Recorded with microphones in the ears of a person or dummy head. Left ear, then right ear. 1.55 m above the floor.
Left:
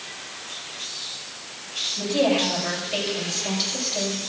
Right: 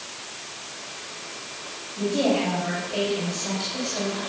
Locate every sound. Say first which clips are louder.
2.0 s a woman speaking: left 1 dB; 40° left (ahead or behind), 7 m